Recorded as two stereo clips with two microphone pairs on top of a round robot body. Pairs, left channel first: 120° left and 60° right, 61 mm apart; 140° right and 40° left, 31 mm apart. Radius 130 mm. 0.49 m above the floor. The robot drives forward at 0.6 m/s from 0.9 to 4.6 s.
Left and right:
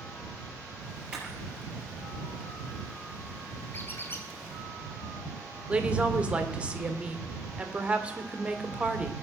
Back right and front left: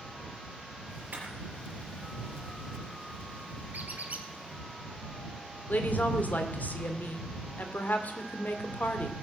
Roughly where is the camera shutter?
Ahead.